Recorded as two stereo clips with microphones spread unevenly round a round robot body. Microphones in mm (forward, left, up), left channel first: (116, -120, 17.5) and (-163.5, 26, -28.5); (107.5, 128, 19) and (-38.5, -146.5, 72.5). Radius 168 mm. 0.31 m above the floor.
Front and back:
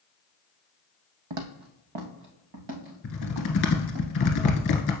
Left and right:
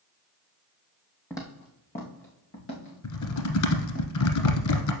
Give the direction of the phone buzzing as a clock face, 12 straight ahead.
No phone buzzing in this recording.